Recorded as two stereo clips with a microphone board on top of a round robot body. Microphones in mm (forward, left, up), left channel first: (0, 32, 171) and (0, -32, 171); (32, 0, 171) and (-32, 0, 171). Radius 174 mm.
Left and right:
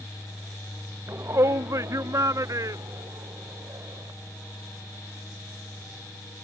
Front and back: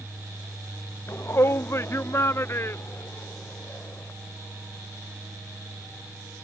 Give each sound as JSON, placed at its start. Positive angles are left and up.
{"t": 1.1, "sound": "a shout", "azimuth_deg": -45}